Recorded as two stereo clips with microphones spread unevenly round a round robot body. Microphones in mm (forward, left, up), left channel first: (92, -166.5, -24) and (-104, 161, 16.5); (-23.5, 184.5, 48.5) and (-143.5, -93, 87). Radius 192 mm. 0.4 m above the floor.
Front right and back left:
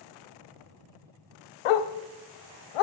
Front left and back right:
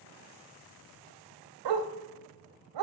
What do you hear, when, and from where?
1.6 s a dog barking: 80° right, 0.6 m